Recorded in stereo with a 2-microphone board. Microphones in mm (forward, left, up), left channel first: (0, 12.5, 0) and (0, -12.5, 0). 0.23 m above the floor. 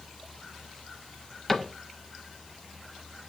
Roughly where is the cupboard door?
Centre.